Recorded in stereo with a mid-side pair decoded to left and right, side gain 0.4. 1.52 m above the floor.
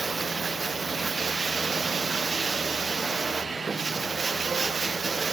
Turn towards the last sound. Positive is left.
turn(degrees=-35)